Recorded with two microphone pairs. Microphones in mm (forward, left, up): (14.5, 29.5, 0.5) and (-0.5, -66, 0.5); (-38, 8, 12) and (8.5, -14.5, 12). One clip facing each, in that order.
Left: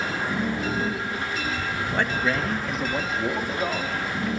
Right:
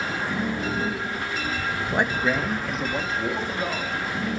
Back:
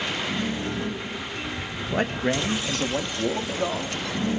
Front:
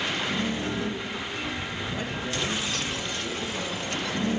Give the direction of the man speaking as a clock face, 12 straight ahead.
6 o'clock.